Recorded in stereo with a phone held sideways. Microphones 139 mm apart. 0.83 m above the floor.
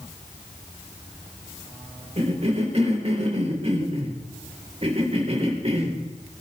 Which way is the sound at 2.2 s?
45° right (ahead or behind).